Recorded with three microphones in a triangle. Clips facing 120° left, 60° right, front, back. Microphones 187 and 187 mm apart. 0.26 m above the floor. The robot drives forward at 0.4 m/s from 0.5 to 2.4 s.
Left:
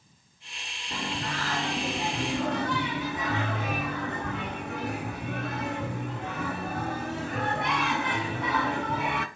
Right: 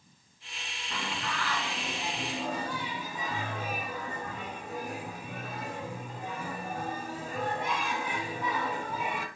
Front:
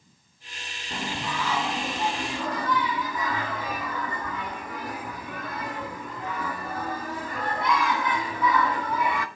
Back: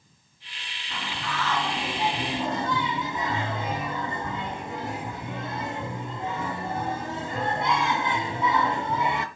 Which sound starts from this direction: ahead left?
Singing, at 0.9 s.